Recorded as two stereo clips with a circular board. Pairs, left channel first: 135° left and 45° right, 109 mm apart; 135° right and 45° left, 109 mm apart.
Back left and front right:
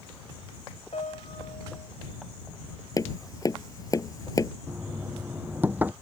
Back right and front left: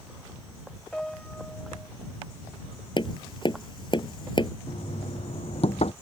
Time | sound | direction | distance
0.9 | a piano | 145° left | ?
3.0 | tapping | 170° right | ?
4.7 | knocking | 120° right | ?